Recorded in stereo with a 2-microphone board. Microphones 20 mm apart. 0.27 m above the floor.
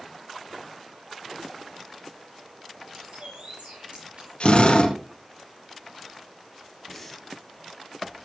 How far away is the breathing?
About 3 m.